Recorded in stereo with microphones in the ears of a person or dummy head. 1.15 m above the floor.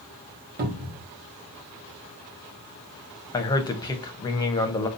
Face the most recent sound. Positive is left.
turn(degrees=20)  # may be behind; listen again after turning